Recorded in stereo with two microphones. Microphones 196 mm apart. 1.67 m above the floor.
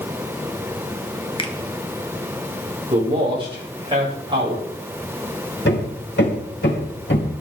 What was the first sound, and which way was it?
A finger snap, 25° left (ahead or behind).